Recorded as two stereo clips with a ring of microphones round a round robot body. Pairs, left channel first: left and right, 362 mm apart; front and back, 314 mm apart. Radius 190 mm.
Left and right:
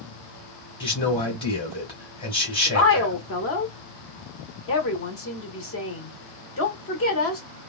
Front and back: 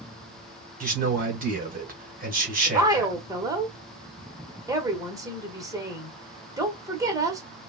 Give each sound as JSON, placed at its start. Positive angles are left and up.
{"t": 0.8, "sound": "a man speaking", "azimuth_deg": 150, "distance_m": 1.7}
{"t": 2.7, "sound": "a woman speaking", "azimuth_deg": 105, "distance_m": 1.3}